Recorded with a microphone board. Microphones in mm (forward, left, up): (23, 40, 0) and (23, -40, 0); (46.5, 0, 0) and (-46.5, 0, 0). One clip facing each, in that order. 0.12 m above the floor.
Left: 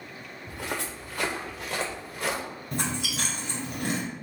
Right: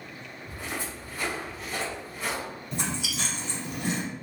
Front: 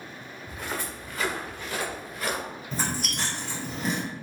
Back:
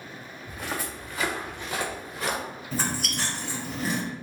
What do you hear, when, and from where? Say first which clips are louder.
0.5 s footsteps: left 2 dB, back 1 dB; 90° left, 1.3 m; by 2.4 s 115° left, 2.5 m
2.7 s chewing: left 2 dB, back 1 dB; 95° left, 1.8 m